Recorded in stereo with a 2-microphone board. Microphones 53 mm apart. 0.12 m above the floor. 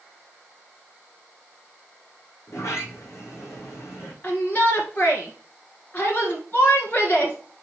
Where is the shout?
35° left (ahead or behind), 1.3 m.